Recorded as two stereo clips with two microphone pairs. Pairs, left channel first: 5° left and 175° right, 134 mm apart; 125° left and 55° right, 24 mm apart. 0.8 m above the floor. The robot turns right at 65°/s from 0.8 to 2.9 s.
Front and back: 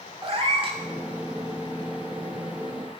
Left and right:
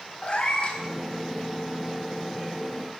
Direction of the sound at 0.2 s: 150° left.